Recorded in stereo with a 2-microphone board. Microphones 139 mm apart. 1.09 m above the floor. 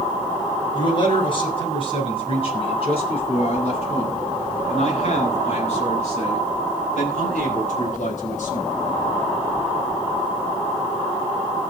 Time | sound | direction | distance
0.7 | a man speaking | 35° left (ahead or behind) | 7 m